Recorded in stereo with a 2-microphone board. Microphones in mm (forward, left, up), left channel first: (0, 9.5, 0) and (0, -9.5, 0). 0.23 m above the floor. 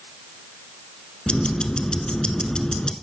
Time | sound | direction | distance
1.3 | ticking | 55° left (ahead or behind) | 0.6 m